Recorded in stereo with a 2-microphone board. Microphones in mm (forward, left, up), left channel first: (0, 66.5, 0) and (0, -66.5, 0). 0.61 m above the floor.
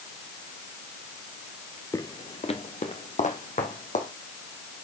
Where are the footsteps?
25° left (ahead or behind), 0.6 m; by 4.1 s 70° left (ahead or behind), 2 m.